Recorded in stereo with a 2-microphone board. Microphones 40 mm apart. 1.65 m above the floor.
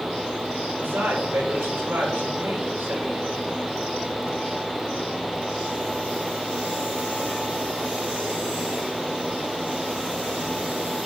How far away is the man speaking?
About 5.5 m.